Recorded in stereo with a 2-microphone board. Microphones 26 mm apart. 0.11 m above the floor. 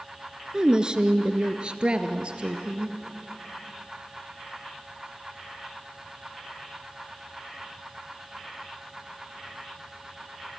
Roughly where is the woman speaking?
Right.